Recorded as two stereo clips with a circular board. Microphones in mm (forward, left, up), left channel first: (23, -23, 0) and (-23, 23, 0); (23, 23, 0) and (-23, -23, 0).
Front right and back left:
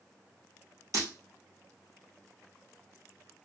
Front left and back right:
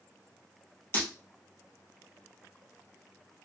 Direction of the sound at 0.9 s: 100° left.